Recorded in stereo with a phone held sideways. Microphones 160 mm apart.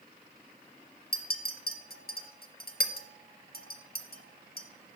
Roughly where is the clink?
Left.